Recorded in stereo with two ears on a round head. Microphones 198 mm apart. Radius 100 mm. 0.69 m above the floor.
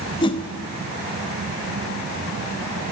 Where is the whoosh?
25° left (ahead or behind), 1.0 m.